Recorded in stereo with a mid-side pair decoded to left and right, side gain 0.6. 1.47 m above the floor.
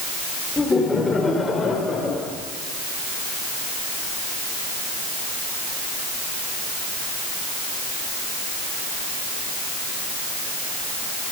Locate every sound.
0.6 s laughter: 15° left, 4.5 m; by 2.3 s 30° left, 6 m